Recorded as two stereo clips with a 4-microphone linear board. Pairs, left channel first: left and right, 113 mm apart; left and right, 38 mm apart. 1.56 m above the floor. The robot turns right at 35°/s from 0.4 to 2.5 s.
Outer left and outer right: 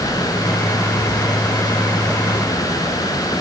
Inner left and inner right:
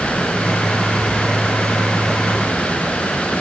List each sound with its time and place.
Only background noise.